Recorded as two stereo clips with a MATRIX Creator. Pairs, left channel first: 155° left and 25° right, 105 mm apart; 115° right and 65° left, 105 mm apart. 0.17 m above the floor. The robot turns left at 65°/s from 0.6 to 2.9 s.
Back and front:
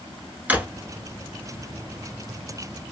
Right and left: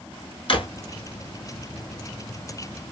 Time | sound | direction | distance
0.5 | a drawer | 95° right | 0.9 m